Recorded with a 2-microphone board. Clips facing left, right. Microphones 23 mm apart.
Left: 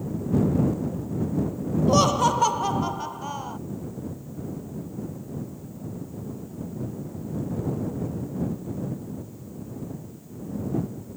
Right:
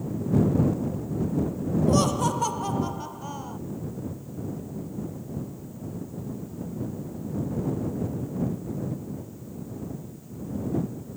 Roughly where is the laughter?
Left.